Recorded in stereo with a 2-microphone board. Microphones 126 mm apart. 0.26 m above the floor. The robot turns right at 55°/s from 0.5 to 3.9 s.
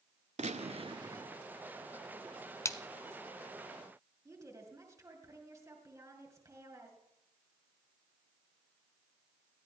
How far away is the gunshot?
About 0.5 m.